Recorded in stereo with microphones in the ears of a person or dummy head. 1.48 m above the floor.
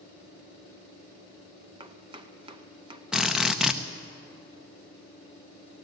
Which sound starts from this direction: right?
Chopping, at 1.8 s.